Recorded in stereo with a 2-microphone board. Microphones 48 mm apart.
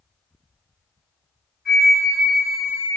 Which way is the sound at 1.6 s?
10° left (ahead or behind).